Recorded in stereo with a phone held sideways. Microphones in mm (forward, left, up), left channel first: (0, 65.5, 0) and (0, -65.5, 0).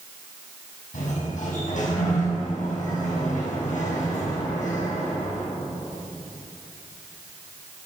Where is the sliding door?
80° left, 5.5 m.